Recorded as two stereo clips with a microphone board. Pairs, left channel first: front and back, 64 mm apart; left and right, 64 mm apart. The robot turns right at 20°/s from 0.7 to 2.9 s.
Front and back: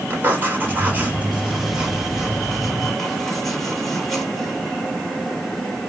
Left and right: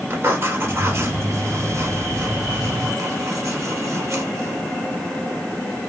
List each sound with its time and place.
0.1 s writing: 130° right, 2 m; by 4.6 s 90° right, 2 m